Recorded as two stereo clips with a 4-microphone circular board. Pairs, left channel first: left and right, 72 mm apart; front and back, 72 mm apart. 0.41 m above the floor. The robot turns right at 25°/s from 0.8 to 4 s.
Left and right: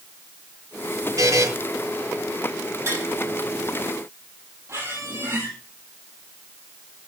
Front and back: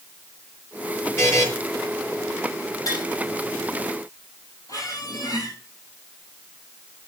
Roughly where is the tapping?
Ahead right.